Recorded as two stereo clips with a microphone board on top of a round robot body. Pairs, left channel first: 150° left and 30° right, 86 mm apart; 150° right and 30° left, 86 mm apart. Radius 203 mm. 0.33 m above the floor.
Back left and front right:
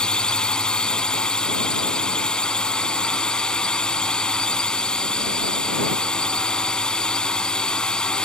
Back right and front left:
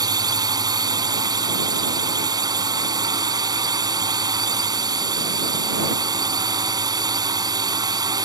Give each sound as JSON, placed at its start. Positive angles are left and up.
{"t": 0.0, "sound": "a drone", "azimuth_deg": 70}